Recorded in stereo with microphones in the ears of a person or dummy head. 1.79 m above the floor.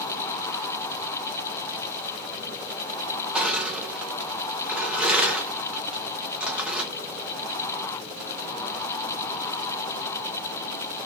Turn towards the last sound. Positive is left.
turn(degrees=0)  # may be behind; listen again after turning